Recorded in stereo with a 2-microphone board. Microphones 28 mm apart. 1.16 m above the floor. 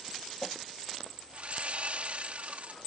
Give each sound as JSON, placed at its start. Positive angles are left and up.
{"t": 1.3, "sound": "sawing", "side_deg": -55}